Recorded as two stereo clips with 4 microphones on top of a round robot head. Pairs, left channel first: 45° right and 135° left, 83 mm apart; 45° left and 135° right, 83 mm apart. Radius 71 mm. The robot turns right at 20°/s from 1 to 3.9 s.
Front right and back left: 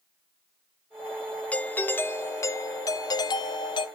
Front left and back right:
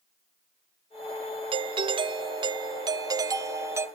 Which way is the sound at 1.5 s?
120° right.